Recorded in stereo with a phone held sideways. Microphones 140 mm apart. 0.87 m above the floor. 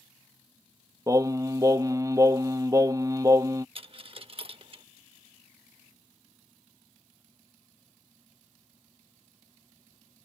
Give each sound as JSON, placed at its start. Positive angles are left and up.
{"t": 1.1, "sound": "singing", "side_deg": -25}
{"t": 3.8, "sound": "a dropped coin", "side_deg": -40}